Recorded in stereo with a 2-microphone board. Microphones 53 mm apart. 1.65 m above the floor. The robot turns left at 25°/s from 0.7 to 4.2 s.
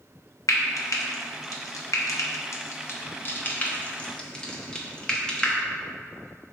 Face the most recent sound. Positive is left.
turn(degrees=15)  # may be behind; listen again after turning